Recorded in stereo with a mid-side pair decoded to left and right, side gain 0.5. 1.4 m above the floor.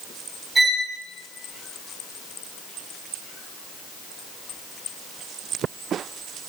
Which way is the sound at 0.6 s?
15° right.